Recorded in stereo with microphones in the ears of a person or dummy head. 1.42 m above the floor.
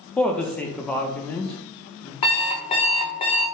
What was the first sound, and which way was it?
A woman speaking, 10° left (ahead or behind).